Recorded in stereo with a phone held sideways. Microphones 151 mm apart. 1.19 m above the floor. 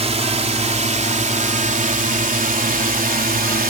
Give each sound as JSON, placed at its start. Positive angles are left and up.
{"t": 0.0, "sound": "a drone", "side_deg": -45}